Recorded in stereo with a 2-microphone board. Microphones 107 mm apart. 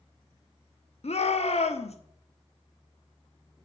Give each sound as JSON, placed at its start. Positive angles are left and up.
{"t": 1.0, "sound": "a shout", "side_deg": 70, "distance_m": 1.1}